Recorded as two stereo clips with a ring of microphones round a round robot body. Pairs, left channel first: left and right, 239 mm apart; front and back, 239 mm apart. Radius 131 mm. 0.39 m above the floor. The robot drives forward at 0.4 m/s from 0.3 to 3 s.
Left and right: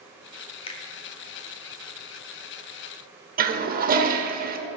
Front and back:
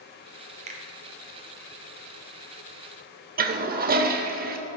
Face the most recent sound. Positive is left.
turn(degrees=-135)